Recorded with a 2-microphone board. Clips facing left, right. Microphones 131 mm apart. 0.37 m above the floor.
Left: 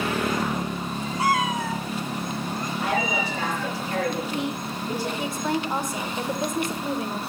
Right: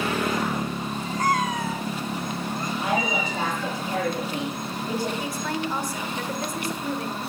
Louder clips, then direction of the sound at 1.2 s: Left 1 dB; 10° left (ahead or behind).